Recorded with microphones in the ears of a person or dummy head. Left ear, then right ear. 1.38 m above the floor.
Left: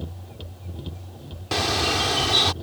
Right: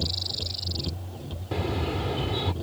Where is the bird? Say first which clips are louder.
Left 8 dB; 60° left (ahead or behind).